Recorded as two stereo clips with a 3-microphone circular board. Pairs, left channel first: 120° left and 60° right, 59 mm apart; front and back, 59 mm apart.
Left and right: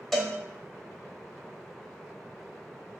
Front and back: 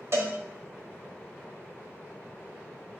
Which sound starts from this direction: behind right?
A cowbell, at 0.1 s.